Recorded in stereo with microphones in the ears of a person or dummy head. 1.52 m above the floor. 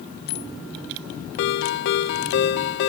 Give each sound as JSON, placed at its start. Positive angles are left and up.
{"t": 1.4, "sound": "a ringtone", "side_deg": 50, "distance_m": 0.8}